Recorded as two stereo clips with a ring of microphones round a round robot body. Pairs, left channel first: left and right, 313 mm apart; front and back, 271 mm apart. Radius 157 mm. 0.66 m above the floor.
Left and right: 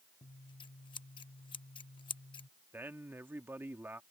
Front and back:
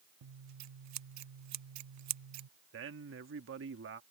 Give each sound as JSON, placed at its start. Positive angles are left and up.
{"t": 0.2, "sound": "scissors", "azimuth_deg": 165}
{"t": 2.7, "sound": "a man speaking", "azimuth_deg": -170}